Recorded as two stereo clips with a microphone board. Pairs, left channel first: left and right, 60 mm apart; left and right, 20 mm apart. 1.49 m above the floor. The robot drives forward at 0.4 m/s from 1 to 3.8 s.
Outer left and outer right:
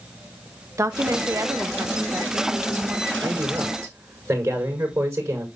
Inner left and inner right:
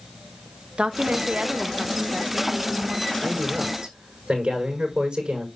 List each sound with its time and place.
0.8 s a woman speaking: 70° right (ahead or behind), 1.2 m; by 3.1 s 45° right (ahead or behind), 1.6 m
3.2 s a man speaking: 85° right, 6 m; by 5.5 s 90° right, 6 m